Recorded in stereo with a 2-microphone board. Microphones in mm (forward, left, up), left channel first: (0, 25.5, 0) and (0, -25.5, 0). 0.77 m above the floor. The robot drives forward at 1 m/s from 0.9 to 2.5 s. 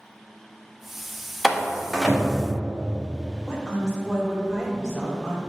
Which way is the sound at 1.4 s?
Centre (ahead or behind).